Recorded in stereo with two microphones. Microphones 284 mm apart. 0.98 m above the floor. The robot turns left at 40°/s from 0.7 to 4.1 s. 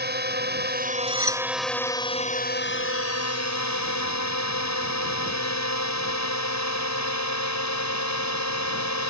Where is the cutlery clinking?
45° right (ahead or behind); by 1.4 s 60° right (ahead or behind).